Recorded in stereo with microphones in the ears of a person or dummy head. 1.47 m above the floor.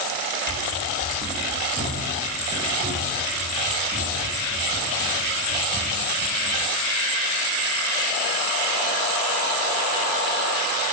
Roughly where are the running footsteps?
Right.